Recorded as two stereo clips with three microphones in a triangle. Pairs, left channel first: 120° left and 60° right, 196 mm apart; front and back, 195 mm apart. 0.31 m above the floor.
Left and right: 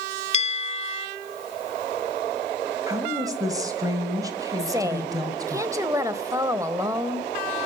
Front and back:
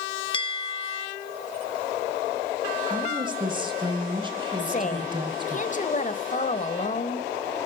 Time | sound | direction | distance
0.3 | a bell | 60° left | 0.6 m
2.9 | a woman speaking | 125° right | 1.5 m
4.6 | a woman speaking | 5° left | 1.1 m